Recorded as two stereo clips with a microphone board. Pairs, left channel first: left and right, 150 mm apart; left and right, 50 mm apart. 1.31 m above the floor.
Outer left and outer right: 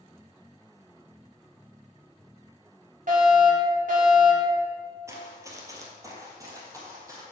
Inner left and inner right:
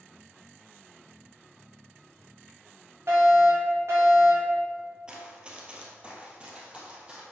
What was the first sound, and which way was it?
A fire alarm, 60° right (ahead or behind).